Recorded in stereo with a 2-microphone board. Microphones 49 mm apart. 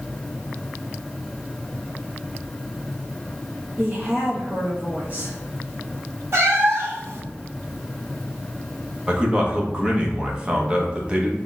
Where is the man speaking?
20° right (ahead or behind), 1.0 m.